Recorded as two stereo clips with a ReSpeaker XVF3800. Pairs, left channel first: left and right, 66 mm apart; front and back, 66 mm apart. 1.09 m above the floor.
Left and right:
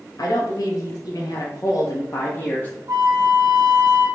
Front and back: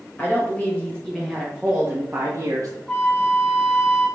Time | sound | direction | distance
0.2 | a woman speaking | 65° left | 1.6 m
2.9 | a flute | 70° right | 1.4 m